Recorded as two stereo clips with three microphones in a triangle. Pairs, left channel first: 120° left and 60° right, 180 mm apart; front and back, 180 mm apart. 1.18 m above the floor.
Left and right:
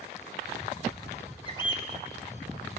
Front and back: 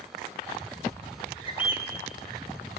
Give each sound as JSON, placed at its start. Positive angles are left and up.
{"t": 1.4, "sound": "a bird", "azimuth_deg": 55, "distance_m": 2.0}